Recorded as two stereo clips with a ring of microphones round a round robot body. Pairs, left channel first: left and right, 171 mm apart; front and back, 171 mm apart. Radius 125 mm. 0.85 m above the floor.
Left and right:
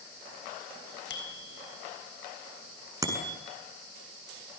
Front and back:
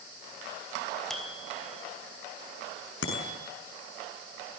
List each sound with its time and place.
1.1 s a bicycle bell: 90° left, 5 m
3.0 s a bicycle bell: 20° right, 7.5 m